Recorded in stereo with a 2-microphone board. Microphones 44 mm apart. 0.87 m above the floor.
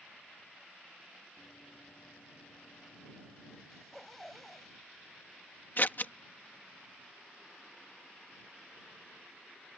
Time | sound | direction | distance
1.4 | running footsteps | 60° left (ahead or behind) | ?
3.7 | a zipper | 5° left (ahead or behind) | ?
5.8 | scissors | 50° left (ahead or behind) | ?